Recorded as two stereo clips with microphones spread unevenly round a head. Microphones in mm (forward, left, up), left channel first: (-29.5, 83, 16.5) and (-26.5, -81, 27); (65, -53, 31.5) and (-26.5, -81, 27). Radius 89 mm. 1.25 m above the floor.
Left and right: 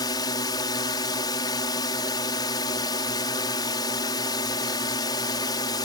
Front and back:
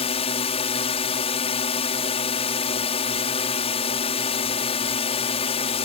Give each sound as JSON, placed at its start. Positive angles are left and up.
{"t": 0.0, "sound": "a drone", "azimuth_deg": 25}